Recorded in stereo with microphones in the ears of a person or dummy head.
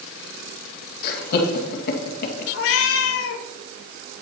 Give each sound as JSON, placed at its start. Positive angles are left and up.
{"t": 1.0, "sound": "laughter", "side_deg": 50, "distance_m": 2.0}
{"t": 2.5, "sound": "a cat meowing", "side_deg": 60, "distance_m": 1.3}